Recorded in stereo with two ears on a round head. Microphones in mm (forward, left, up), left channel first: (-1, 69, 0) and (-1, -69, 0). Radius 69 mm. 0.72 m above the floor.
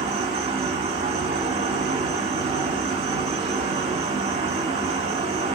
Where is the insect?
40° right (ahead or behind), 1.6 m.